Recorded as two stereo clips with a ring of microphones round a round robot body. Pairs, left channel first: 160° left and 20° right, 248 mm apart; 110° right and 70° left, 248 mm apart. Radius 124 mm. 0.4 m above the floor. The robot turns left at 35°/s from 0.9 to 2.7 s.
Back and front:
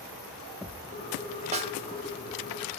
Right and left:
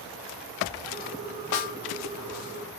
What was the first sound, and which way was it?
A snare drum, 90° right.